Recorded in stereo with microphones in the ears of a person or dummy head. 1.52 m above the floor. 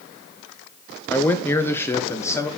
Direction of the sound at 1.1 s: 15° left (ahead or behind).